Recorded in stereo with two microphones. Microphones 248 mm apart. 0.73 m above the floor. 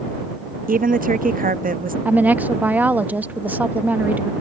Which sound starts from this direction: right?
A woman speaking, at 0.7 s.